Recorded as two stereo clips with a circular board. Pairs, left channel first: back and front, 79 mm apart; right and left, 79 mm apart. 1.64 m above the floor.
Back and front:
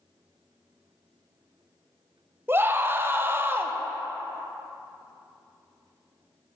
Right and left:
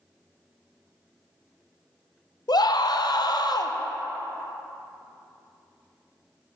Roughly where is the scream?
Ahead right.